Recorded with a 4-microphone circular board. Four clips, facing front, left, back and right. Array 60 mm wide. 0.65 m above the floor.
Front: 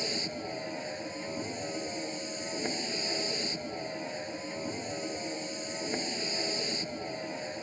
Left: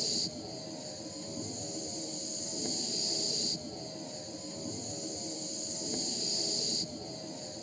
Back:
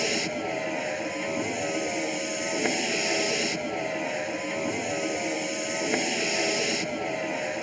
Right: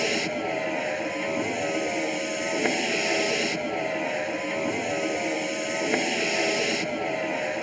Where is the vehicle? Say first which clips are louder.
Right 15 dB, back 8 dB; 120° right.